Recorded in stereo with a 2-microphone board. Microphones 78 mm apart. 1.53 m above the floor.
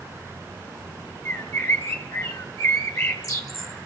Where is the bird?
40° left (ahead or behind), 1.2 m.